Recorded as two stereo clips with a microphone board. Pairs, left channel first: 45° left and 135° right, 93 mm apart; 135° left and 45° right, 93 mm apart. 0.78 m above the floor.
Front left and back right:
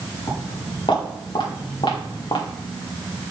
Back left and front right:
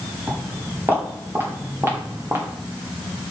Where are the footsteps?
20° left, 5.5 m; by 2.5 s 15° left, 2.5 m.